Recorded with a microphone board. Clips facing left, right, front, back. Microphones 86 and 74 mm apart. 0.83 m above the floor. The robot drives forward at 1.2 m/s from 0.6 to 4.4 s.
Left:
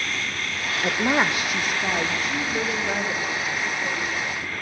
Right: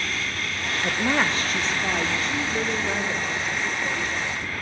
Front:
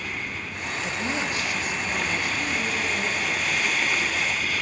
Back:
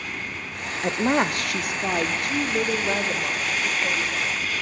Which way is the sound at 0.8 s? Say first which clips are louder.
Left 2 dB, back 9 dB; 155° left.